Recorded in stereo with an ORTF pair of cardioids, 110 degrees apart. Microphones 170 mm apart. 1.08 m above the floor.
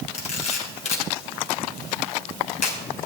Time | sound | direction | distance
0.1 | a camera shutter | 40° left | 3 m